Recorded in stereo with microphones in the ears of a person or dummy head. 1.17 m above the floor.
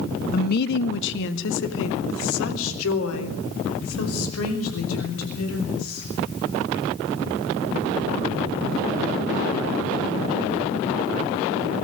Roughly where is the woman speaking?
Left.